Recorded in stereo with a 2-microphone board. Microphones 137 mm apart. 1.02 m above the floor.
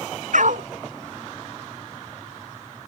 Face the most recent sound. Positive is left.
turn(degrees=-70)  # may be behind; listen again after turning